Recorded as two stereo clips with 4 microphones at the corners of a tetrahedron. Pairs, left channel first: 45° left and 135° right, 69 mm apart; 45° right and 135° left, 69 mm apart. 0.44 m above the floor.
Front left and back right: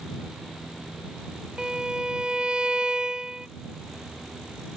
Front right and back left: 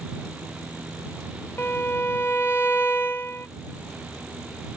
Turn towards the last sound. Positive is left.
turn(degrees=-65)